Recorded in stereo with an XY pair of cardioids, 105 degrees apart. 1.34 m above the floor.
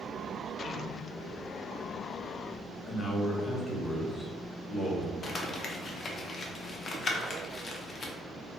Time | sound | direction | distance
2.9 | a man speaking | 30° left | 0.9 m
5.2 | crumpling | 45° left | 0.5 m